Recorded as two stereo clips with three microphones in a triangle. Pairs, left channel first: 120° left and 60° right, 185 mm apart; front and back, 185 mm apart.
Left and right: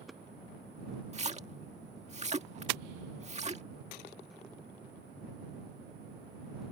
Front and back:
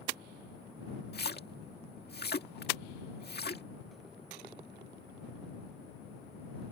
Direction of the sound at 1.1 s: 10° right.